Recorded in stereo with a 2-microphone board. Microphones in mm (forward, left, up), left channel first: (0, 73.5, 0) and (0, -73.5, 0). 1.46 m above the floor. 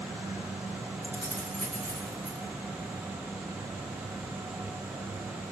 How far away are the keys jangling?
About 3 m.